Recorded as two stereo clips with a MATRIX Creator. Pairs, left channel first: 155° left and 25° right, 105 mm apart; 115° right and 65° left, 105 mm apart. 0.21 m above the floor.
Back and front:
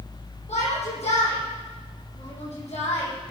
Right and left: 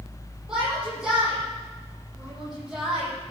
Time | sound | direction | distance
0.5 | a shout | 150° left | 9.5 m